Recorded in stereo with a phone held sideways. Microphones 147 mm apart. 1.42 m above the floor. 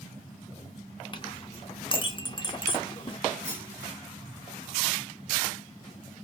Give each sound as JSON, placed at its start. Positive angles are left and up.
{"t": 1.1, "sound": "a clink", "side_deg": 35, "distance_m": 0.6}
{"t": 3.5, "sound": "a clunk", "side_deg": -15, "distance_m": 0.9}